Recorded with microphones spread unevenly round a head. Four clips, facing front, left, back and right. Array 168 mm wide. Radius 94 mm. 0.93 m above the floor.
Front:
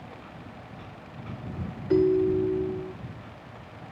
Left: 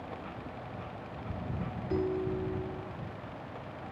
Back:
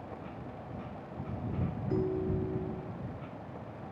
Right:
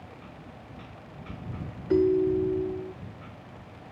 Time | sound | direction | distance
1.9 | a ringtone | 45° right | ?